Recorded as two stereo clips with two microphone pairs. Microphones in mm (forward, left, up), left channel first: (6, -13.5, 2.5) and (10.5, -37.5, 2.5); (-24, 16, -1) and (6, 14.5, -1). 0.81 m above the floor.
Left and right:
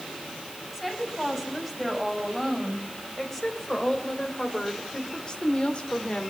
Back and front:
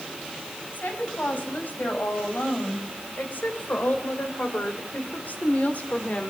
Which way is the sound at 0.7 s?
175° right.